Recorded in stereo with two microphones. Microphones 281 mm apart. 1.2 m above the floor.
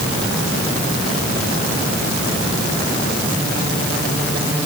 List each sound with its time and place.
Only background noise.